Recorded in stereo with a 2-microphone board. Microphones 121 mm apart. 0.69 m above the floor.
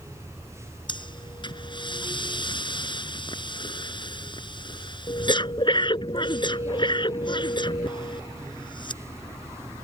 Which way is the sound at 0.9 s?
40° left (ahead or behind).